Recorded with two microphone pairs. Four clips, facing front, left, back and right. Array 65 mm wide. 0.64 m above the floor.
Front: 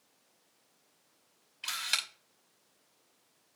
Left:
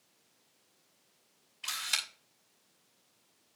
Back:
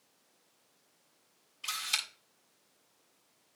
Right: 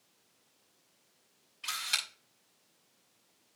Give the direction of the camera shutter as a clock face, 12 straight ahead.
12 o'clock.